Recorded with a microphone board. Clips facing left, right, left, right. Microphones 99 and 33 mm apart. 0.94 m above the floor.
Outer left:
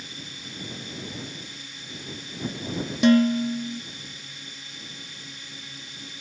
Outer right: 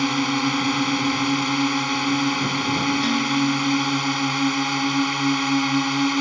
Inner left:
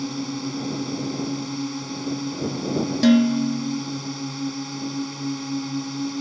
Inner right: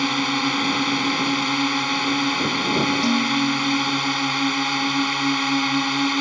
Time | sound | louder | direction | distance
0.0 | a drone | outer right 22 dB, inner right 8 dB | 80° right | ?
3.0 | dishes clattering | outer left 2 dB, inner left 2 dB | 75° left (ahead or behind) | ?